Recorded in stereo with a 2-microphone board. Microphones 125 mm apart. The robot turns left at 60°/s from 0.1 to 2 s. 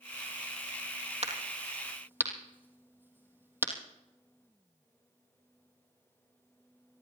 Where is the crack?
55° right (ahead or behind), 3 m; by 3.7 s 15° right (ahead or behind), 3 m.